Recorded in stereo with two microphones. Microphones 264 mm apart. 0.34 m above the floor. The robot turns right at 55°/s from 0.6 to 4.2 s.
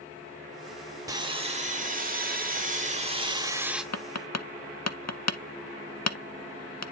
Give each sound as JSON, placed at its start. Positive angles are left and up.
{"t": 1.1, "sound": "sawing", "azimuth_deg": -155, "distance_m": 1.2}
{"t": 3.9, "sound": "tapping", "side_deg": 75, "distance_m": 0.6}